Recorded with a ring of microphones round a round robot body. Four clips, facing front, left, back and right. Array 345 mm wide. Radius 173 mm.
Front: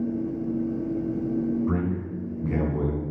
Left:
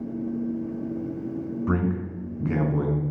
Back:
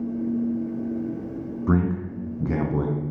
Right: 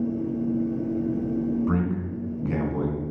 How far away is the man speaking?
About 2.5 m.